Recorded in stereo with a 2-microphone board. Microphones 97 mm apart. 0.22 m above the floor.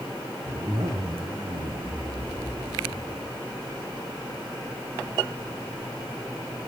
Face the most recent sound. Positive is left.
turn(degrees=-70)  # may be behind; listen again after turning